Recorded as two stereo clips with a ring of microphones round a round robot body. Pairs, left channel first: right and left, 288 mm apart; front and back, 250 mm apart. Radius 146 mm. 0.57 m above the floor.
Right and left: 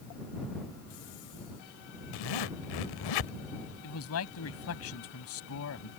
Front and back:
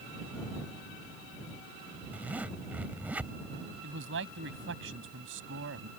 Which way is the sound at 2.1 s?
95° right.